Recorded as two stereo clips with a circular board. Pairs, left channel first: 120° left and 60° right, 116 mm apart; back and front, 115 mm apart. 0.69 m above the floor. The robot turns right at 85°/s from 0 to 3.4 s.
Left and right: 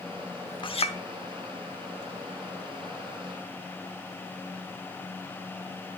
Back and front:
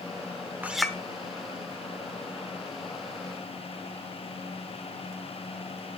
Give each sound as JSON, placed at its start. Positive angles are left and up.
{"t": 0.6, "sound": "a clink", "azimuth_deg": 75, "distance_m": 0.9}